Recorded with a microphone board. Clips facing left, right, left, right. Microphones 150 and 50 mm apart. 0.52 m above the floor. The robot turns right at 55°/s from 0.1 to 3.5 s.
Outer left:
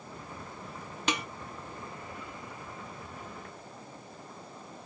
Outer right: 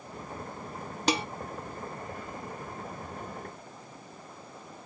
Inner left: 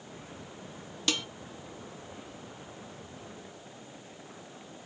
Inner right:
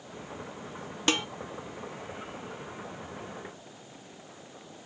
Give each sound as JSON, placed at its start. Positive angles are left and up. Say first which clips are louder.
{"t": 1.1, "sound": "dishes clattering", "louder": "outer right 5 dB, inner right 5 dB", "side_deg": -35, "distance_m": 0.7}